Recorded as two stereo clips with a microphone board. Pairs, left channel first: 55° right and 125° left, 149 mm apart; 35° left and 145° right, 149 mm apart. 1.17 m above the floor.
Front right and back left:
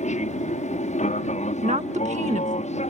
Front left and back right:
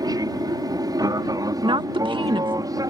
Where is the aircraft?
85° right.